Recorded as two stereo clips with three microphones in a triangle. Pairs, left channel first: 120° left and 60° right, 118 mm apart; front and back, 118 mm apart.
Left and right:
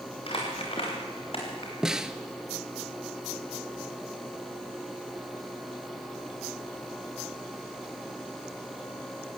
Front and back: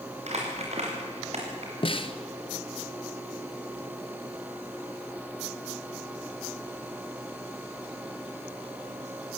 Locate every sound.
0.3 s crumpling: 160° left, 5 m
1.8 s a snare drum: 25° left, 0.9 m